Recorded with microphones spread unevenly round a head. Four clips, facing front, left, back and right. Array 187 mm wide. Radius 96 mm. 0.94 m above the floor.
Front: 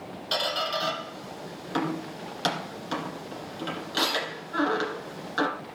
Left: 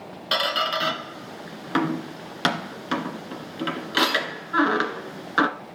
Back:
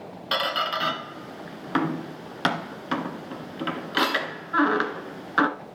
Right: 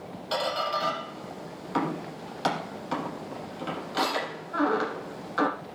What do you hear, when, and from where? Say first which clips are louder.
0.3 s a squeak: left 3 dB, back 3 dB; 130° left, 1.8 m